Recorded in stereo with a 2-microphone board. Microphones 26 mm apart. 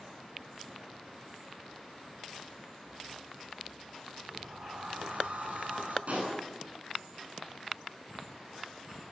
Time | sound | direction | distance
4.3 | a sliding door | 85° right | 7.5 m
6.1 | a pop | 65° right (ahead or behind) | 9 m